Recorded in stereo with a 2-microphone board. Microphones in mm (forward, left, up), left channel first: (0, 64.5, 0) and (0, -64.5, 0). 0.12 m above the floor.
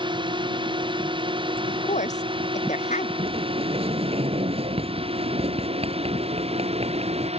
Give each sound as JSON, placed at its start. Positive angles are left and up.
{"t": 0.0, "sound": "a drone", "side_deg": -40}
{"t": 1.7, "sound": "a woman speaking", "side_deg": 65}
{"t": 3.2, "sound": "a sliding door", "side_deg": -55}